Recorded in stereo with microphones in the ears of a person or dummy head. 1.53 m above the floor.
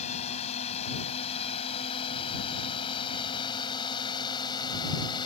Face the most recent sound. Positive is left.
turn(degrees=25)  # may be behind; listen again after turning